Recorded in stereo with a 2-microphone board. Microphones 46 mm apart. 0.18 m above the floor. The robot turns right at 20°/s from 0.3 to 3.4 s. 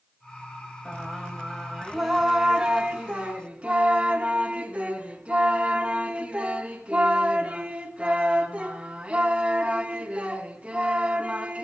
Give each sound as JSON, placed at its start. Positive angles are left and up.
{"t": 0.8, "sound": "singing", "azimuth_deg": 165, "distance_m": 1.8}